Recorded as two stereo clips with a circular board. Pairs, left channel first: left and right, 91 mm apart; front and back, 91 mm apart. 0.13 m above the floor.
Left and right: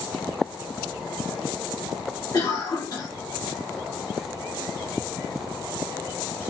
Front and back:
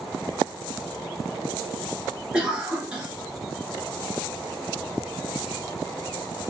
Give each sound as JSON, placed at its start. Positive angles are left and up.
{"t": 2.3, "sound": "a cough", "azimuth_deg": 105, "distance_m": 1.5}